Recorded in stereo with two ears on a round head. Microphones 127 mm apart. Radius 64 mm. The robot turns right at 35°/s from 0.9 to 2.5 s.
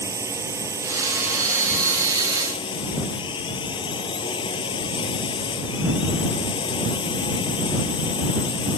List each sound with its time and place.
0.0 s a drone: 20° right; by 8.8 s 35° left